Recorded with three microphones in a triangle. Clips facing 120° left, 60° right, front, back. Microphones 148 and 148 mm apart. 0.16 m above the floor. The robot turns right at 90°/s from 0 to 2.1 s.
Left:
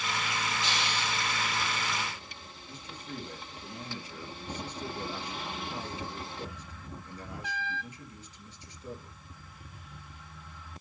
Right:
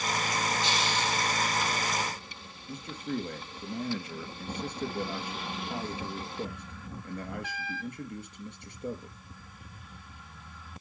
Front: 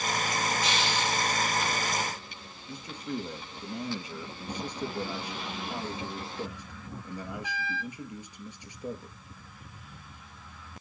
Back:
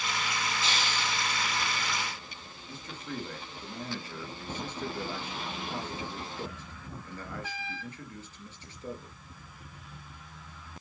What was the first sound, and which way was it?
A hiss, 120° left.